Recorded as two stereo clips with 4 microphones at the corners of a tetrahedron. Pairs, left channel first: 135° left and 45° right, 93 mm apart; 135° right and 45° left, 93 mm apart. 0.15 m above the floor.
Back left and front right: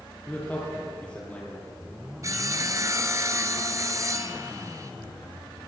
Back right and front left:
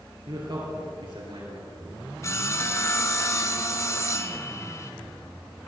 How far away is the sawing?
About 1.0 m.